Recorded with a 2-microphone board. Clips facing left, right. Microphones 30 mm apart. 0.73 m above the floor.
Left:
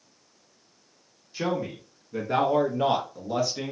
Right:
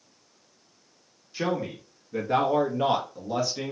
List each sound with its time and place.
1.3 s a man speaking: 10° right (ahead or behind), 0.9 m; by 3.7 s 10° left (ahead or behind), 1.1 m